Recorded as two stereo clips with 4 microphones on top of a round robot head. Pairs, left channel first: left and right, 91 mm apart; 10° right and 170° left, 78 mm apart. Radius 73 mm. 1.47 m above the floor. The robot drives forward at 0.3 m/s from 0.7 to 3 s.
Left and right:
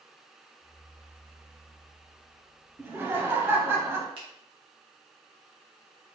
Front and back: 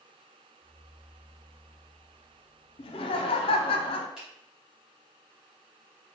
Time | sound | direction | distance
2.8 | laughter | 15° right | 0.5 m
4.2 | a finger snap | 105° right | 1.0 m